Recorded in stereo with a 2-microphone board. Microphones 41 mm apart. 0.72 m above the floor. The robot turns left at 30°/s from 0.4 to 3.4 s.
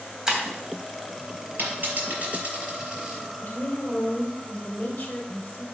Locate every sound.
0.3 s breaking glass: 15° right (ahead or behind), 2.5 m
1.6 s a dropped coin: 55° right (ahead or behind), 5.5 m; by 3.2 s 10° right (ahead or behind), 5.5 m
3.4 s a woman speaking: 30° left (ahead or behind), 3 m